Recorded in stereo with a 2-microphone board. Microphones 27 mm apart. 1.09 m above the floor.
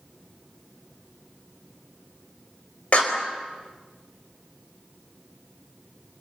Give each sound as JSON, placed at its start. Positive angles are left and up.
{"t": 2.9, "sound": "a clap", "side_deg": 50, "distance_m": 4.5}